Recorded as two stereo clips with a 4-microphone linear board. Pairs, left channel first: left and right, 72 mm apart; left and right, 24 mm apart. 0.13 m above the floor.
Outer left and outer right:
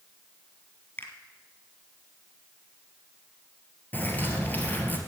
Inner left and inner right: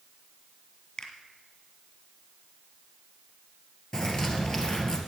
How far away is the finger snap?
About 1.9 m.